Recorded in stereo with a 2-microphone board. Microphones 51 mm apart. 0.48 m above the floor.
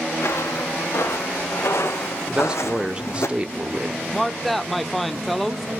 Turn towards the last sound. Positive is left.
turn(degrees=5)  # may be behind; listen again after turning